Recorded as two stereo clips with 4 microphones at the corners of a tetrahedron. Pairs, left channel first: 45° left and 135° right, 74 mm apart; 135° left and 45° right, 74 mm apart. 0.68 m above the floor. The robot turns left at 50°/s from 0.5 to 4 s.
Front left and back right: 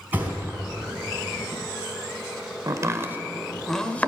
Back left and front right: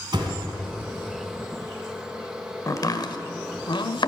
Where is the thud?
65° right, 3 m; by 0.6 s 70° right, 3 m.